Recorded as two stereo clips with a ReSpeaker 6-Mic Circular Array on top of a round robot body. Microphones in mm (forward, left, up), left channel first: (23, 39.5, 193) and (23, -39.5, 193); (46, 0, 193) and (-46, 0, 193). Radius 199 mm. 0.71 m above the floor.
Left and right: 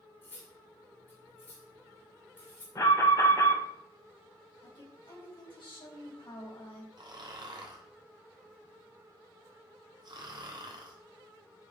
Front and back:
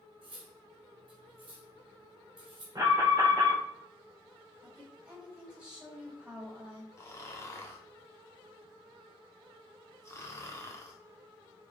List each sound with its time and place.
0.2 s cutlery clinking: 155° left, 3 m
2.8 s an alarm: 135° left, 5 m
4.6 s a woman speaking: 100° left, 5 m
7.0 s snoring: 60° right, 1.4 m